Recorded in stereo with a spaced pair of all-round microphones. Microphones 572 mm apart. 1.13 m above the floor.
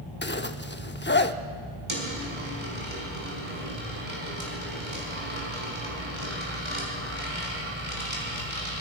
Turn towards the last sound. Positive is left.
turn(degrees=-50)  # may be behind; listen again after turning